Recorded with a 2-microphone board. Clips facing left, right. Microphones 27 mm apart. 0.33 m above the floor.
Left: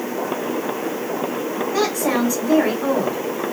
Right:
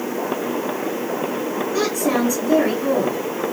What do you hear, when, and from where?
1.7 s a woman speaking: 30° left (ahead or behind), 3 m